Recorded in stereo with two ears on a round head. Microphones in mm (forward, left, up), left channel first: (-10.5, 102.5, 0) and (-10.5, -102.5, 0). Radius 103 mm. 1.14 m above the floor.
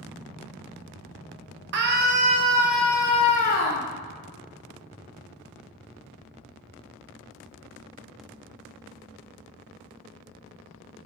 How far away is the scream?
About 1.0 m.